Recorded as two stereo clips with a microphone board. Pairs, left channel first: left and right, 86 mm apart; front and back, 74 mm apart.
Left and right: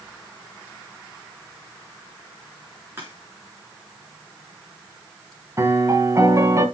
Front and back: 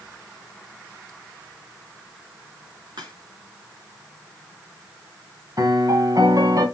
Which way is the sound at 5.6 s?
145° right.